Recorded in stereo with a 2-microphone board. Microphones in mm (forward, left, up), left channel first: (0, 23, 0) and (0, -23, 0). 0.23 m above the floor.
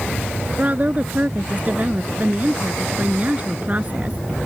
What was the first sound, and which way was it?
A woman speaking, 35° right (ahead or behind).